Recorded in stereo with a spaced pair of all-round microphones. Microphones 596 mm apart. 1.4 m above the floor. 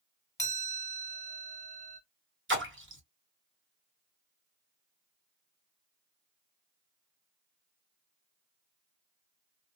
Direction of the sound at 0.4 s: 5° left (ahead or behind).